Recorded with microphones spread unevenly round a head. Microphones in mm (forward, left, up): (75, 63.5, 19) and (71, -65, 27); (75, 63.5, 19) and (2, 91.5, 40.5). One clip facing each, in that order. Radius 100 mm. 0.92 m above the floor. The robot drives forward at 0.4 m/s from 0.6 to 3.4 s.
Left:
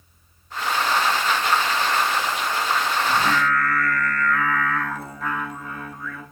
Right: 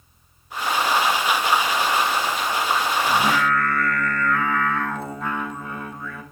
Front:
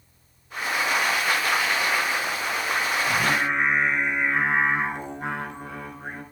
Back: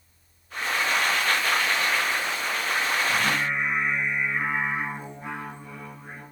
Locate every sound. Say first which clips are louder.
3.1 s singing: right 1 dB, front 2 dB; 25° right, 3 m